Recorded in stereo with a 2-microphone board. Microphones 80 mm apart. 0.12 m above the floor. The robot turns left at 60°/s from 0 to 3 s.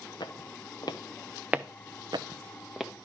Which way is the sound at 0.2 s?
65° left (ahead or behind).